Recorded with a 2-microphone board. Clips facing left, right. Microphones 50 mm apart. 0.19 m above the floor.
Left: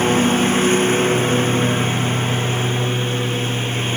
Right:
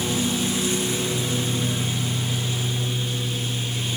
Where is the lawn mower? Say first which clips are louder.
Left 9 dB; 45° left (ahead or behind); by 4.0 s 40° left (ahead or behind).